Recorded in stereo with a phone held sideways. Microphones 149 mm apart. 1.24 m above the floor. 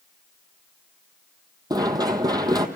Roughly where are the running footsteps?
Right.